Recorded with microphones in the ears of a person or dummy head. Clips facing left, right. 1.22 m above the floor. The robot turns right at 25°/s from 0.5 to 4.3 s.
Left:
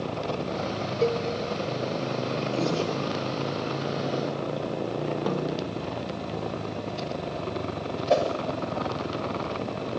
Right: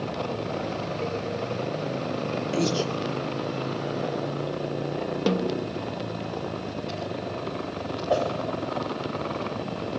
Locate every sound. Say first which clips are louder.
1.0 s a cowbell: left 9 dB; 50° left (ahead or behind), 1.2 m; by 1.2 s 45° left (ahead or behind), 1.2 m
2.5 s breathing: right 2 dB; 25° right (ahead or behind), 2.0 m; by 2.9 s 15° right (ahead or behind), 2.0 m
5.3 s a snare drum: right 3 dB; 35° right (ahead or behind), 0.8 m
8.1 s a whoosh: left 2 dB; 25° left (ahead or behind), 6.5 m